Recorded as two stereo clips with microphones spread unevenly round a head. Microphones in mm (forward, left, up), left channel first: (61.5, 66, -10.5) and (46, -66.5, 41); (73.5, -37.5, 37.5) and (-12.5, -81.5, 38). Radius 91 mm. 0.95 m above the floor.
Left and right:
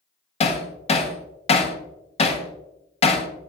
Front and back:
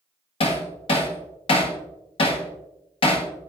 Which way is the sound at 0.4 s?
60° left.